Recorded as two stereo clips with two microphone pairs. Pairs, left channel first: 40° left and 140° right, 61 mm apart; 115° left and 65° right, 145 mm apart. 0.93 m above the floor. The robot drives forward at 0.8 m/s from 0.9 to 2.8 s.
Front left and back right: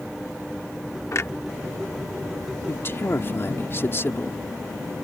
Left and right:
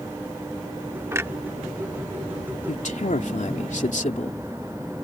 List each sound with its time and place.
1.1 s a clunk: 5° left
2.7 s a man speaking: 85° left; by 4.4 s 90° left